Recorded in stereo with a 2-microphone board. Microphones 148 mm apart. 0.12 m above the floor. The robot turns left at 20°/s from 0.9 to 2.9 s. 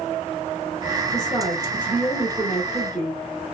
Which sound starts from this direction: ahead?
A woman speaking, at 1.1 s.